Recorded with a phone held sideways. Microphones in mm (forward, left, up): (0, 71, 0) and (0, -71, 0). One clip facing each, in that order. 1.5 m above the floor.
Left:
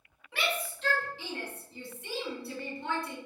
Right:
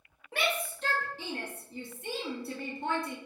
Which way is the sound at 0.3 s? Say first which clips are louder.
Right 2 dB; 45° right (ahead or behind).